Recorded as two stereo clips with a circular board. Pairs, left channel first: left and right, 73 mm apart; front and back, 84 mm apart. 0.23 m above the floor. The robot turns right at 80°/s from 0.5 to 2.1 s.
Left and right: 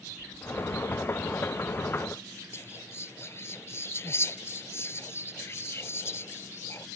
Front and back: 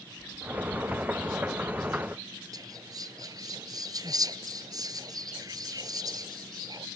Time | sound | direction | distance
0.2 | keys jangling | 65° left | ?
2.5 | whispering | 140° left | ?